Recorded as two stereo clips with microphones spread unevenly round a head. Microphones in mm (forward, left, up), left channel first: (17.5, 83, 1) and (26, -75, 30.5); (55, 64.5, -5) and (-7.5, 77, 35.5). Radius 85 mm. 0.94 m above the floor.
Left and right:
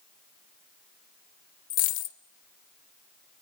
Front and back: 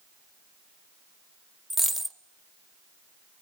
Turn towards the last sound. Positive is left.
turn(degrees=125)